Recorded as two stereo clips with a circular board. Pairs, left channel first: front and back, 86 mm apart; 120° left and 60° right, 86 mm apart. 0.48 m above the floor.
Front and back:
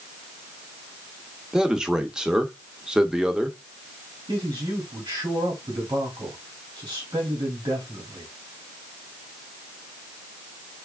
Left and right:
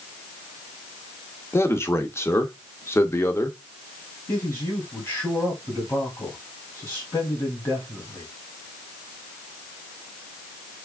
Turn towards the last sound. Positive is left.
turn(degrees=180)